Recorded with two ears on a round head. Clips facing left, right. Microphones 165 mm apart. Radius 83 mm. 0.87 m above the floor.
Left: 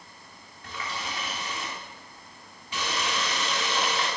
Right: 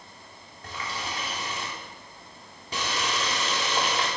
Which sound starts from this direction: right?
A running tap, at 0.6 s.